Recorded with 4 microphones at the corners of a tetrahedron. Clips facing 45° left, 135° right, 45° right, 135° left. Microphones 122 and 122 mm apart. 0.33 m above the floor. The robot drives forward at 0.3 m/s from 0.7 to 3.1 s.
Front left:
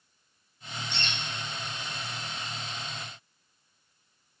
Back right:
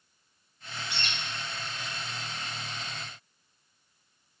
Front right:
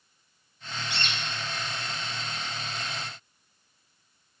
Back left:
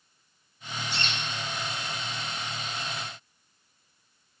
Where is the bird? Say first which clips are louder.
Front left 1 dB, even; 145° left, 0.6 m; by 1.4 s 155° left, 0.7 m.